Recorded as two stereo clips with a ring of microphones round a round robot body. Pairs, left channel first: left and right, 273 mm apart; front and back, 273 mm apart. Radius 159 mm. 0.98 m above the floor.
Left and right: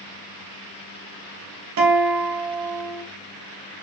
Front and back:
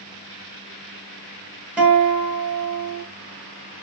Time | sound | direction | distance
1.8 | a guitar | 95° right | 1.3 m